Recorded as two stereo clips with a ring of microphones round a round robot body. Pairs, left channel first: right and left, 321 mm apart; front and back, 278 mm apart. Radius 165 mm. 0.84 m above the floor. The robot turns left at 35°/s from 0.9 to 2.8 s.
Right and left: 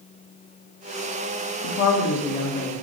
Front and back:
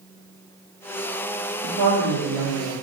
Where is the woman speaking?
130° right, 1.4 m; by 2.7 s 170° right, 1.4 m.